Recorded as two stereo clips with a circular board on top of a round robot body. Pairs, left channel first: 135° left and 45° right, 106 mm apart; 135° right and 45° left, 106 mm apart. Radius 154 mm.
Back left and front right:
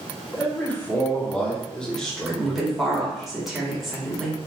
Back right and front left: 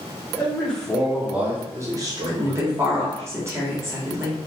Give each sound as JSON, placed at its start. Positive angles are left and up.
{"t": 0.3, "sound": "a man speaking", "azimuth_deg": 180, "distance_m": 1.1}
{"t": 2.3, "sound": "a woman speaking", "azimuth_deg": 40, "distance_m": 1.3}